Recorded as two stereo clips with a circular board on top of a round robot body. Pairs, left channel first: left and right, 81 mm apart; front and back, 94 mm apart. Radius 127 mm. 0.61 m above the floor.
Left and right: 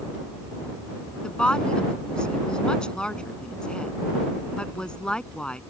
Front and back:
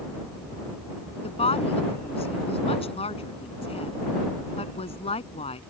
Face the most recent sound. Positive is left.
turn(degrees=10)